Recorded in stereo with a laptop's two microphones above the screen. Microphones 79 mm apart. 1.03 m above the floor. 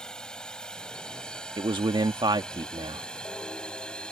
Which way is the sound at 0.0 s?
10° left (ahead or behind).